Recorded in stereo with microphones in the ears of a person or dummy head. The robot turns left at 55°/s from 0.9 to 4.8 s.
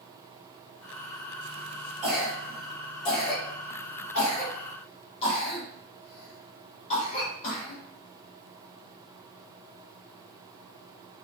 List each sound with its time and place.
2.0 s a cough: 10° right (ahead or behind), 1.6 m; by 7.8 s 35° left (ahead or behind), 1.6 m